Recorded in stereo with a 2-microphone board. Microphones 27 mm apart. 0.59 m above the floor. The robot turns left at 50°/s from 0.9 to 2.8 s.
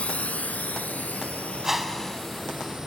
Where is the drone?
55° left (ahead or behind); by 2.9 s 20° right (ahead or behind).